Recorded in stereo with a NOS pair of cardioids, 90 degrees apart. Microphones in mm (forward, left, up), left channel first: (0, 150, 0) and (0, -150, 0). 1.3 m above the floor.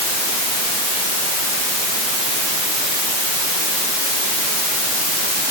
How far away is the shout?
No shout in this recording.